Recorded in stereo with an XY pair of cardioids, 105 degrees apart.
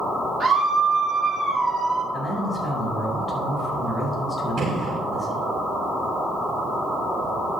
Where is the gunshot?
60° right, 2.5 m.